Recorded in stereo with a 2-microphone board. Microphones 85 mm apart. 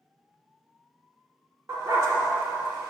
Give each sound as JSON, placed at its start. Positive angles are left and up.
{"t": 1.7, "sound": "a dog barking", "side_deg": -35, "distance_m": 1.6}